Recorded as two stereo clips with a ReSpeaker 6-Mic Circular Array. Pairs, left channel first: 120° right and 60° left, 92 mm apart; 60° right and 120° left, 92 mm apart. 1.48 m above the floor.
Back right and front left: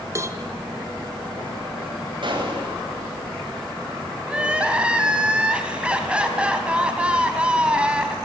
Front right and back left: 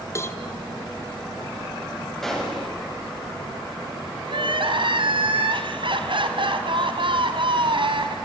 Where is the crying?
135° left, 3 m.